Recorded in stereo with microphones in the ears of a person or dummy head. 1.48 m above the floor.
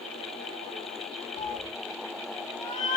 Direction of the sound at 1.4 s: 25° left (ahead or behind).